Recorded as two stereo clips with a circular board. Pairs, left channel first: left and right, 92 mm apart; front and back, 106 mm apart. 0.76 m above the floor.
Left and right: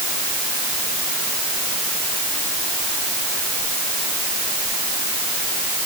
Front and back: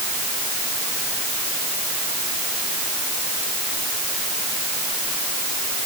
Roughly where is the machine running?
No machine running in this recording.